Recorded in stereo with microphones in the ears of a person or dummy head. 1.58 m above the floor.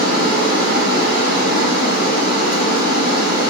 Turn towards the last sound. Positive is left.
turn(degrees=50)  # may be behind; listen again after turning